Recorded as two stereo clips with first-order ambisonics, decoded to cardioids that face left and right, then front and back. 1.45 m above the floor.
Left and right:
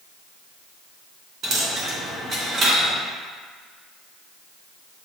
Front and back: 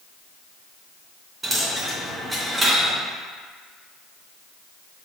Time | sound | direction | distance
1.4 | a dropped coin | 105° right | 0.8 m